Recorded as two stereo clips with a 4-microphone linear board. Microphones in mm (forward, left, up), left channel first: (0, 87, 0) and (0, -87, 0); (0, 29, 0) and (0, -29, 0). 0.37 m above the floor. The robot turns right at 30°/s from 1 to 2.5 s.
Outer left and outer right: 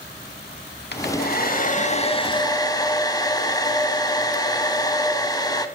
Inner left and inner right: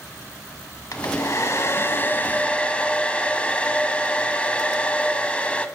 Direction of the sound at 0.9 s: 115° left.